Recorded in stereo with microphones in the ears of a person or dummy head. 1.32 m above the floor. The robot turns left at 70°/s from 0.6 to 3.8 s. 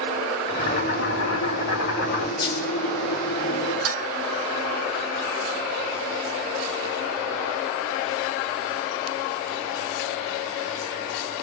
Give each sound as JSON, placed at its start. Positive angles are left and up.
{"t": 0.5, "sound": "boiling", "azimuth_deg": 155, "distance_m": 2.5}
{"t": 2.4, "sound": "a dropped coin", "side_deg": 25, "distance_m": 1.4}
{"t": 3.9, "sound": "dishes clattering", "side_deg": -70, "distance_m": 1.1}